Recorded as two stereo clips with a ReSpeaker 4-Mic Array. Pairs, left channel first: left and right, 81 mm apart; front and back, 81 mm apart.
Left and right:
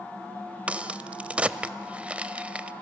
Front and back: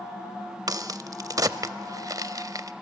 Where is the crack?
160° right, 0.5 m.